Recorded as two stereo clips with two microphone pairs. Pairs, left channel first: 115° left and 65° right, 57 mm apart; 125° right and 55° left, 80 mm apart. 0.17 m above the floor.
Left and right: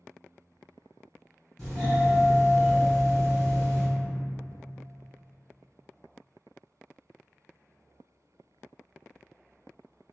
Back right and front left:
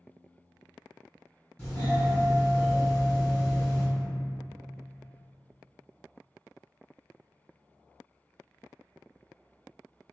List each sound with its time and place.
1.6 s a doorbell: 165° right, 1.9 m